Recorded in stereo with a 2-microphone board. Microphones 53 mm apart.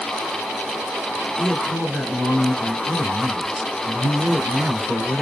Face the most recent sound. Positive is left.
turn(degrees=-10)  # may be behind; listen again after turning